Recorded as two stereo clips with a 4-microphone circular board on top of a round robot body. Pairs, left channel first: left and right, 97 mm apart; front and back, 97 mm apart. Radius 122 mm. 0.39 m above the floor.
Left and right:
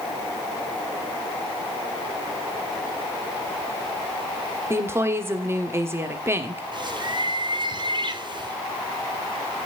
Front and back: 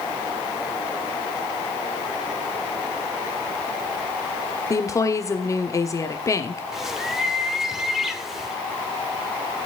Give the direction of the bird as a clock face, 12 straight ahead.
3 o'clock.